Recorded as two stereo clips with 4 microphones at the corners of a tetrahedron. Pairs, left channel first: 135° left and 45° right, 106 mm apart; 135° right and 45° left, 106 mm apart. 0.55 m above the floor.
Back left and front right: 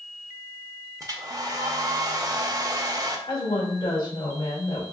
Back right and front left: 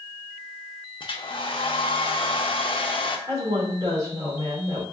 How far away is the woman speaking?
About 2 m.